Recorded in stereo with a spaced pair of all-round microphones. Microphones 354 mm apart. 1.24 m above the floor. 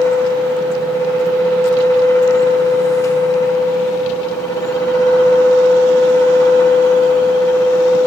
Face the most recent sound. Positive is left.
turn(degrees=10)  # may be behind; listen again after turning